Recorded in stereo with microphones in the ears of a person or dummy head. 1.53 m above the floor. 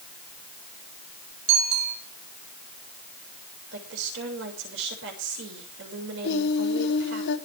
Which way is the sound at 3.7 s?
80° right.